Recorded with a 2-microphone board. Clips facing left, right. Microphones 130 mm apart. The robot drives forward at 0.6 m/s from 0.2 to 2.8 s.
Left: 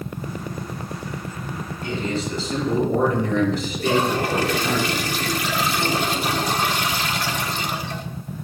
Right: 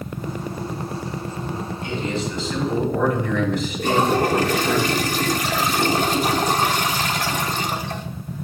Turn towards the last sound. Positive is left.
turn(degrees=-45)  # may be behind; listen again after turning